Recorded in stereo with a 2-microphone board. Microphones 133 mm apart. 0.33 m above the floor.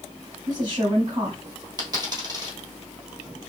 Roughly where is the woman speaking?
Right.